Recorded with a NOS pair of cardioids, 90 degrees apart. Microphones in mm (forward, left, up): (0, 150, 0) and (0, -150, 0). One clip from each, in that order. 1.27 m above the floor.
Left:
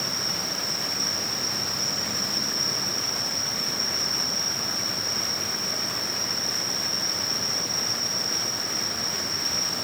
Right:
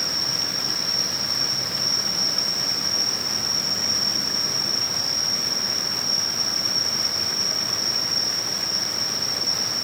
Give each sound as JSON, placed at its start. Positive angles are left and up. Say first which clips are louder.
{"t": 0.0, "sound": "an insect", "louder": "right 3 dB", "azimuth_deg": -65, "distance_m": 2.5}